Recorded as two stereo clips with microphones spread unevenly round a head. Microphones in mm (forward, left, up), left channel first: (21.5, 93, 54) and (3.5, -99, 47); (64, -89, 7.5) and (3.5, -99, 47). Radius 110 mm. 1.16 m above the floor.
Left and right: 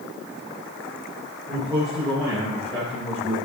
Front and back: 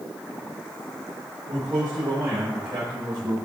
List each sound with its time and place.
1.5 s a man speaking: 155° right, 3.5 m; by 3.4 s 170° left, 5 m